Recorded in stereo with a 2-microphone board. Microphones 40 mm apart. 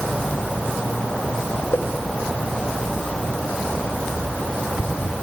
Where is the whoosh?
70° left (ahead or behind), 2.5 m.